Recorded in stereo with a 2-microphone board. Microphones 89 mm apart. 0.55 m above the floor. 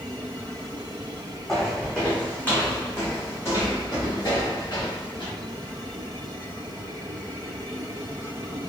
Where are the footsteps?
Centre (ahead or behind), 1.5 m; by 5.3 s 55° left (ahead or behind), 2.5 m.